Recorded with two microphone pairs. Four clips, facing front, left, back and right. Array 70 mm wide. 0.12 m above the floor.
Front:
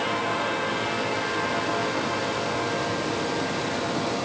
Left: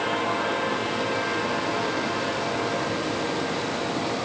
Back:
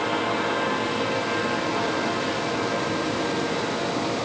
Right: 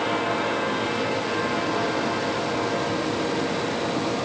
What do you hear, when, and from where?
Only background noise.